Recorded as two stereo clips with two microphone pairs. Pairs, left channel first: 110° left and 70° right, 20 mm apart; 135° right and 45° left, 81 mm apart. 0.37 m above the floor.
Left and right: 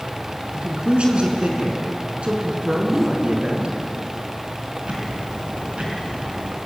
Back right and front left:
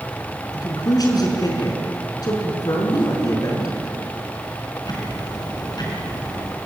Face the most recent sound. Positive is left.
turn(degrees=-105)